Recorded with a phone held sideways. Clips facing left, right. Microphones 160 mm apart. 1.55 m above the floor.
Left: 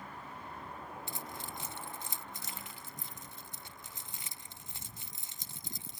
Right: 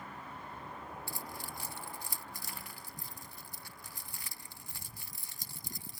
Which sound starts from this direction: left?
Keys jangling, at 1.1 s.